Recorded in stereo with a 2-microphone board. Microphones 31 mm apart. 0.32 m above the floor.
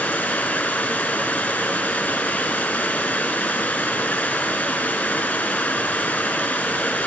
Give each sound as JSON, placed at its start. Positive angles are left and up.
{"t": 0.0, "sound": "running water", "side_deg": 80, "distance_m": 0.8}